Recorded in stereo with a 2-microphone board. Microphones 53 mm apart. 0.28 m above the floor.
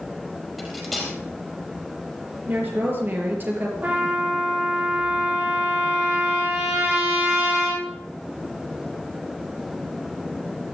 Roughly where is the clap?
I don't hear a clap.